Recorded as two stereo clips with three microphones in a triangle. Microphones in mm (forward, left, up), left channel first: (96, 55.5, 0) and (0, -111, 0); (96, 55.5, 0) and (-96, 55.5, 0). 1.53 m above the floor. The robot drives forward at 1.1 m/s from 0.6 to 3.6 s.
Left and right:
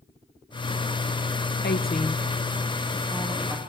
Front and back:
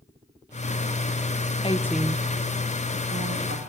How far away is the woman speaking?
About 0.7 m.